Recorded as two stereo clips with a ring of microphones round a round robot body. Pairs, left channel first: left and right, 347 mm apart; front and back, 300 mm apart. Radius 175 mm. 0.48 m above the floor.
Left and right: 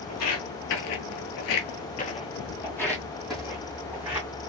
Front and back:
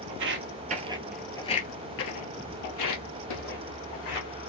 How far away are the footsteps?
About 0.9 m.